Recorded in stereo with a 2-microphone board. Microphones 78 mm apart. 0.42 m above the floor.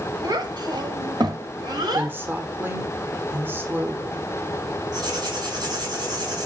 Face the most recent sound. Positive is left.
turn(degrees=-60)  # may be behind; listen again after turning